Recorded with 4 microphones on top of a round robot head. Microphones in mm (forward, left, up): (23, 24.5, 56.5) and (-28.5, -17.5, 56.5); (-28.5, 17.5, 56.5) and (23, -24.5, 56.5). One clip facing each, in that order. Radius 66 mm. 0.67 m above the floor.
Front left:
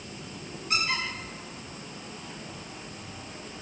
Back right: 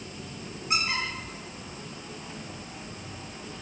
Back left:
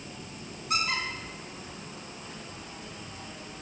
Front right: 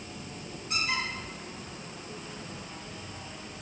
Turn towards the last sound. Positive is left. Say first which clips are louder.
# even, back left 2 dB
turn(degrees=150)